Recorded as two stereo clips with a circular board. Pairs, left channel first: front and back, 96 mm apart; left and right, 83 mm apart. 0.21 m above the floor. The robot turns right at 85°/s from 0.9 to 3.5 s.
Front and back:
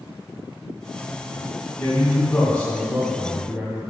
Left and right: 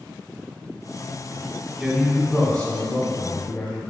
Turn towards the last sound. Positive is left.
turn(degrees=125)